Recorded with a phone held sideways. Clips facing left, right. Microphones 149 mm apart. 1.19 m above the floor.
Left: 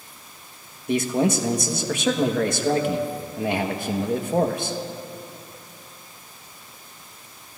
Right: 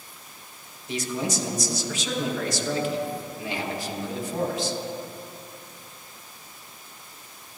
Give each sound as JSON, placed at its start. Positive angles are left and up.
{"t": 0.9, "sound": "a man speaking", "side_deg": 60, "distance_m": 1.2}